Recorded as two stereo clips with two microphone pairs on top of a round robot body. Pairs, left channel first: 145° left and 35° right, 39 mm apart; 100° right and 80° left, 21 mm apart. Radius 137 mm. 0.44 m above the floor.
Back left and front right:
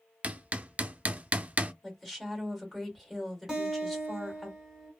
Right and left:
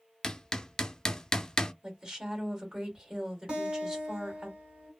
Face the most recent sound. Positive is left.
turn(degrees=50)